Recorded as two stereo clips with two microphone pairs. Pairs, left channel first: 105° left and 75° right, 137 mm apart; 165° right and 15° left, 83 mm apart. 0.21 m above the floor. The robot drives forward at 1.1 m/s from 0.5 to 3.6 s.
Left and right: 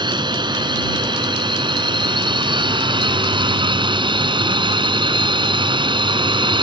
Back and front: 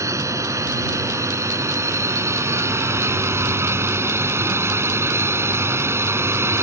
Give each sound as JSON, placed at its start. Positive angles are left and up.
{"t": 0.0, "sound": "a drone", "azimuth_deg": -25}